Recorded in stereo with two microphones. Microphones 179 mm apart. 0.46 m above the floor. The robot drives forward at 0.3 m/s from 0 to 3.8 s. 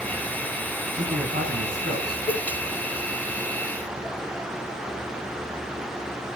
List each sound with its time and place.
0.9 s a man speaking: 65° right (ahead or behind), 4.5 m; by 2.2 s 60° right (ahead or behind), 4.5 m
2.3 s a cowbell: 45° left (ahead or behind), 3.5 m